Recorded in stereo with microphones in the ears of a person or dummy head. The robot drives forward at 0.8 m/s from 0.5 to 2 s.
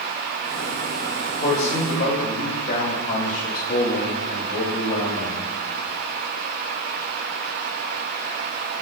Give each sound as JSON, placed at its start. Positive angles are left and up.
{"t": 1.4, "sound": "a man speaking", "side_deg": 35, "distance_m": 2.5}